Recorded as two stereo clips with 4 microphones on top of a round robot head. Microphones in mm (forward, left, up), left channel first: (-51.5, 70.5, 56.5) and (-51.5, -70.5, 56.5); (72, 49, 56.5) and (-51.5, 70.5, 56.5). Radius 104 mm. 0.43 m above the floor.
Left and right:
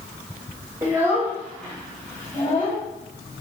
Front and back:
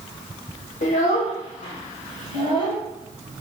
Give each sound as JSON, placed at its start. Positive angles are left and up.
{"t": 0.8, "sound": "a child speaking", "azimuth_deg": -25, "distance_m": 1.2}